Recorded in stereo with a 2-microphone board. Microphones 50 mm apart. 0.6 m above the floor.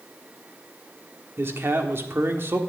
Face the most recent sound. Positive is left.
turn(degrees=-50)  # may be behind; listen again after turning